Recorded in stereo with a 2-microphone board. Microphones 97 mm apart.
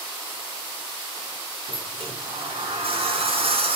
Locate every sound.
1.7 s a sliding door: 80° right, 4.5 m